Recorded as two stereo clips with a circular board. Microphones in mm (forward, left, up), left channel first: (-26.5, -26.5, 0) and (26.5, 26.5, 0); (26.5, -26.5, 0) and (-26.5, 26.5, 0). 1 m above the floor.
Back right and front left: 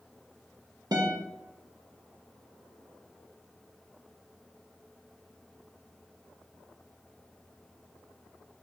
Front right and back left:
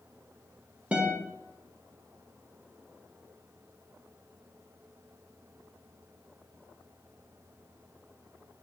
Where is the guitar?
65° left, 0.8 m.